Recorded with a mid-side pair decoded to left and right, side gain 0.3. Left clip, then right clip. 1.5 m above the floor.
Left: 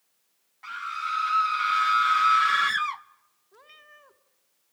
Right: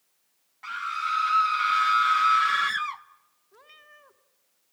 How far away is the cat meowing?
About 2 m.